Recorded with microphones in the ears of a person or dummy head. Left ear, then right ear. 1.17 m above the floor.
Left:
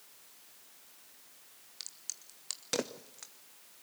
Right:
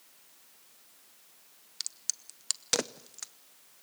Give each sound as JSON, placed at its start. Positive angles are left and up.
{"t": 1.8, "sound": "a crack", "side_deg": -30, "distance_m": 0.6}